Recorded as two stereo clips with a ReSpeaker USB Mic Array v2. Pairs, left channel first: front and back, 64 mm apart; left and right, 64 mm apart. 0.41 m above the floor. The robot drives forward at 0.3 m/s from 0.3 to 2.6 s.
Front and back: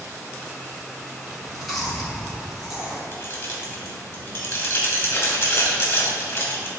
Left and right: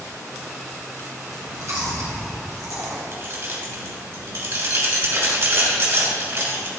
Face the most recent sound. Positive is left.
turn(degrees=-50)